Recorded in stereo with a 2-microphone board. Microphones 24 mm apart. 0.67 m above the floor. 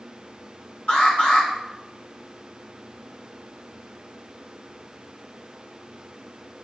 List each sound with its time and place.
0.9 s an alarm: 75° left (ahead or behind), 7 m